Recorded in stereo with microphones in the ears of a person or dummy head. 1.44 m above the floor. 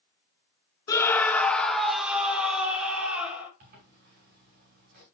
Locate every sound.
0.9 s a scream: 20° left (ahead or behind), 0.5 m; by 3.5 s 5° right (ahead or behind), 2 m
3.6 s a zipper: 45° right (ahead or behind), 2 m